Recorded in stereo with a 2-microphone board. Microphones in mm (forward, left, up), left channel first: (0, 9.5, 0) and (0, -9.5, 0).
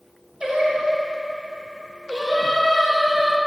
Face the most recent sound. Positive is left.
turn(degrees=-30)  # may be behind; listen again after turning